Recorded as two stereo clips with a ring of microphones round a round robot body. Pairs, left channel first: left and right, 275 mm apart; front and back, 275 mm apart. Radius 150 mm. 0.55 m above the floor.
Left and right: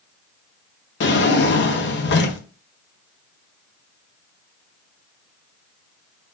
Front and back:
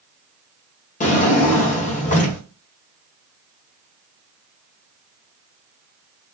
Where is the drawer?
55° left, 0.7 m.